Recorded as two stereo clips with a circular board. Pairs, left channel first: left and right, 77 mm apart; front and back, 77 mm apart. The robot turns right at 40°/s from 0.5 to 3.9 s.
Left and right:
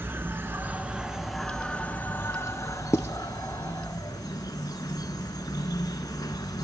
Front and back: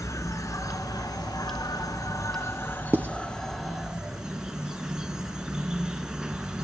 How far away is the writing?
About 0.5 m.